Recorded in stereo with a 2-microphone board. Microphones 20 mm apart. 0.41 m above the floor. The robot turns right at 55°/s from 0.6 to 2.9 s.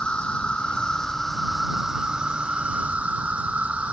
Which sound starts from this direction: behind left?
An insect, at 0.0 s.